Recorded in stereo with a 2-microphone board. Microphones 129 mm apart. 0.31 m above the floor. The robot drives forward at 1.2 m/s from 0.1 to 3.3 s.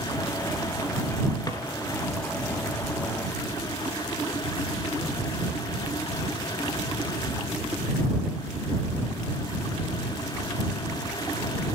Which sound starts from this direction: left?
A drawer, at 1.5 s.